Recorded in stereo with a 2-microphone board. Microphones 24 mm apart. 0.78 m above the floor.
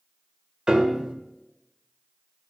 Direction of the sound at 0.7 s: 25° right (ahead or behind).